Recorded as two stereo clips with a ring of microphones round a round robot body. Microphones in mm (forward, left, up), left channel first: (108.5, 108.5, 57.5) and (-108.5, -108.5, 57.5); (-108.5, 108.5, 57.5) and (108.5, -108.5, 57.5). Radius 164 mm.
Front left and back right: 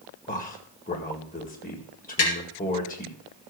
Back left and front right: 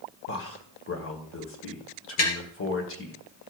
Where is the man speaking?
100° left, 2.0 m.